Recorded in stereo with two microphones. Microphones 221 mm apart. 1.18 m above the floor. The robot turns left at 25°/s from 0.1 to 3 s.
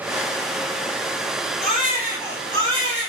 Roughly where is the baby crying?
Ahead.